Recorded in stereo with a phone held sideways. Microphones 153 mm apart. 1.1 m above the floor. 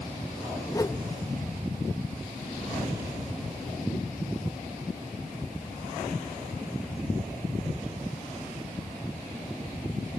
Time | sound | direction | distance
0.7 | a whoosh | 25° left (ahead or behind) | 0.6 m